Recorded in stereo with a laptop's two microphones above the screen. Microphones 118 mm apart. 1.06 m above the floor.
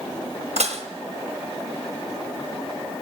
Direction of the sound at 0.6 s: 80° right.